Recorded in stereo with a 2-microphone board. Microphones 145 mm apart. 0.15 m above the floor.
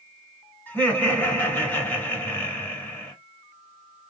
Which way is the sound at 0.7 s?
10° left (ahead or behind).